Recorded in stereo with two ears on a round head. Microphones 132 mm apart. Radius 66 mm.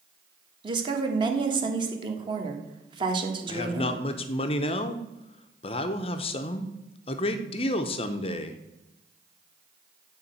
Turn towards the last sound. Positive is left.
turn(degrees=40)  # may be behind; listen again after turning